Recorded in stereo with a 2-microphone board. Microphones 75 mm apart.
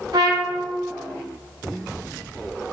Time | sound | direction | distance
0.1 | a trumpet | 60° right (ahead or behind) | 1.3 m